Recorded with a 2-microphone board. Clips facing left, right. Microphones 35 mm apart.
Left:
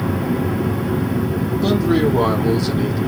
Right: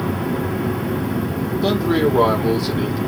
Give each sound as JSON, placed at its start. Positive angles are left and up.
{"t": 1.6, "sound": "a man speaking", "side_deg": -15, "distance_m": 1.5}